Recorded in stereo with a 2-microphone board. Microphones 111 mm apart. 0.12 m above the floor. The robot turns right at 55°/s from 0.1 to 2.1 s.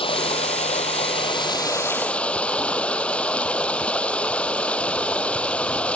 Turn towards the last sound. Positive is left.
turn(degrees=170)